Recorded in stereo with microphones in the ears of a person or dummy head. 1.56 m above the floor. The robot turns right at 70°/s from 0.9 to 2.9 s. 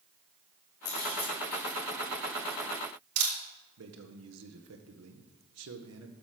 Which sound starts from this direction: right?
A man speaking, at 3.8 s.